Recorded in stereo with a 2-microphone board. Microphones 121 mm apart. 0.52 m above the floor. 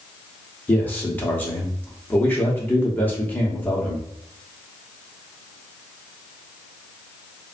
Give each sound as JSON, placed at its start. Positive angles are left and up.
{"t": 0.7, "sound": "a man speaking", "side_deg": 15, "distance_m": 0.8}